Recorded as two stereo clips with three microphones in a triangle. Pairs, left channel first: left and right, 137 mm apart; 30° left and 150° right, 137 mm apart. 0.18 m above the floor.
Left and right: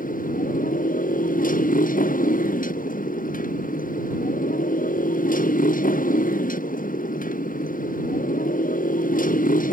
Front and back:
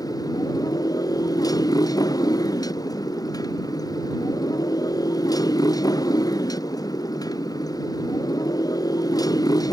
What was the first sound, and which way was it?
A motorcycle, 95° left.